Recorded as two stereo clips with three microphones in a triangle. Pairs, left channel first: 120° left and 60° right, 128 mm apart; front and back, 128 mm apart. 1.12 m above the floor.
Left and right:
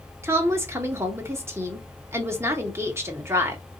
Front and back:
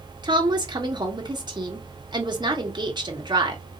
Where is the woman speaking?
125° right, 1.4 m.